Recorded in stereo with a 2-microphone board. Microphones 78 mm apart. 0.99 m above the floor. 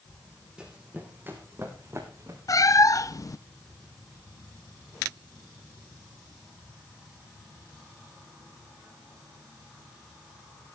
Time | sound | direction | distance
0.6 | running footsteps | 10° right (ahead or behind) | 3.5 m
2.5 | a cat meowing | 45° left (ahead or behind) | 0.5 m